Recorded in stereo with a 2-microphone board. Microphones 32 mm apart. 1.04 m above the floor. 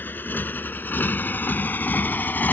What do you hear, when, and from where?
0.0 s a motorcycle: 85° left; by 2.5 s 75° left (ahead or behind)